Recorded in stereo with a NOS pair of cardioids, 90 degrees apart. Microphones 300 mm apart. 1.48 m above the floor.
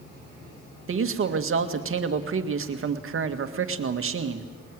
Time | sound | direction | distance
0.9 | a man speaking | 45° right | 2 m